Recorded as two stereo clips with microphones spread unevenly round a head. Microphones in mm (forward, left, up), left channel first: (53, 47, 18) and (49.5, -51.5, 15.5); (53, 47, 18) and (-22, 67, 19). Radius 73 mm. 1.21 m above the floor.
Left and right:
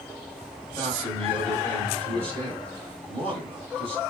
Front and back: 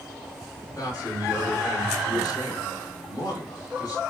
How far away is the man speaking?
About 3 m.